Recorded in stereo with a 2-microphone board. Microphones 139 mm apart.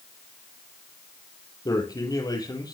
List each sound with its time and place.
1.6 s a man speaking: 30° left (ahead or behind), 3.5 m